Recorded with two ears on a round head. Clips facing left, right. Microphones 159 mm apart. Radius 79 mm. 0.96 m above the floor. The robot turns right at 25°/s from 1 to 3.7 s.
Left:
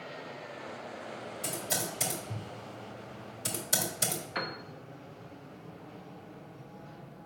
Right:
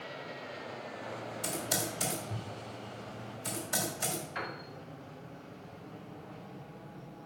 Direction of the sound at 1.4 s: 5° right (ahead or behind).